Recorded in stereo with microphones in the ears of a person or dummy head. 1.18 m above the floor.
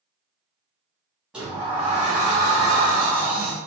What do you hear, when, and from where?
1.3 s a sliding door: 5° right (ahead or behind), 0.6 m